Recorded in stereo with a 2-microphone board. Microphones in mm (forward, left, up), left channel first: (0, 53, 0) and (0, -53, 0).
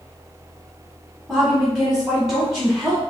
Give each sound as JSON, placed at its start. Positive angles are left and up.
{"t": 1.3, "sound": "a woman speaking", "side_deg": -15, "distance_m": 1.4}